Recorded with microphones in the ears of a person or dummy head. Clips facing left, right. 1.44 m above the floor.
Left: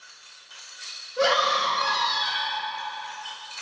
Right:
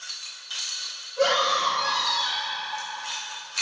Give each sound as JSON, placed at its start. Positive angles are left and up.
{"t": 1.2, "sound": "a scream", "side_deg": 65, "distance_m": 2.5}